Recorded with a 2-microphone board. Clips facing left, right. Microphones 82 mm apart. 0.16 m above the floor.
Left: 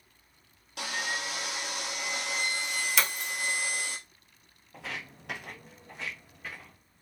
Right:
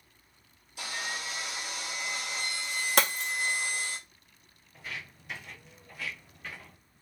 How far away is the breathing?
I don't hear breathing.